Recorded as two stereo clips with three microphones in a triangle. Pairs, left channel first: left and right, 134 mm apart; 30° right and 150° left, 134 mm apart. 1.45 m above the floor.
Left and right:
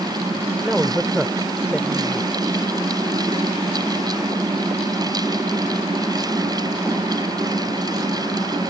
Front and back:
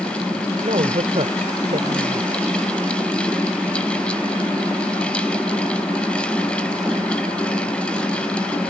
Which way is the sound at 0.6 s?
170° right.